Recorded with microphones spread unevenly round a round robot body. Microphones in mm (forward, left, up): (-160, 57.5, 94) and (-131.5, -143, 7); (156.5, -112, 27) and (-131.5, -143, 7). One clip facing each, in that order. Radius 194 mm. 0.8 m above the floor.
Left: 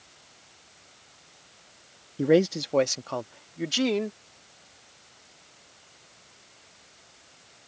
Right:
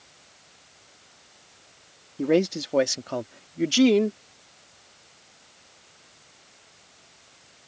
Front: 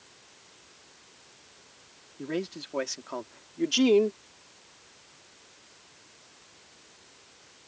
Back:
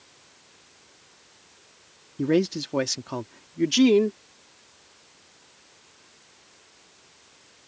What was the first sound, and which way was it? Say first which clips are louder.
A man speaking: left 1 dB, back 11 dB; 175° right.